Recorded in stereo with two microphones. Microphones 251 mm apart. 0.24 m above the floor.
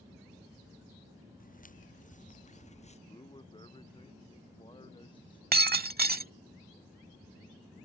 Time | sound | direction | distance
1.4 | footsteps | 30° left (ahead or behind) | ?
3.1 | a man speaking | 20° left (ahead or behind) | ?
5.5 | breaking glass | 35° right (ahead or behind) | ?